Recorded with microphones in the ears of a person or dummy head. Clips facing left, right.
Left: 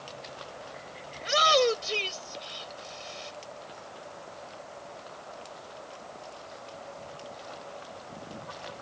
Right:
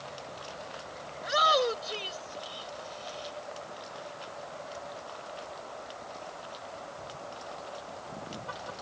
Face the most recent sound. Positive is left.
turn(degrees=30)  # may be behind; listen again after turning